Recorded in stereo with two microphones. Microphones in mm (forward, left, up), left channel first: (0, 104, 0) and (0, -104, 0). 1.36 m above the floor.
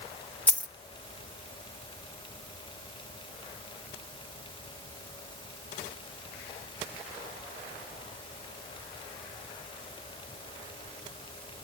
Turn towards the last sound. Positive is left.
turn(degrees=5)  # may be behind; listen again after turning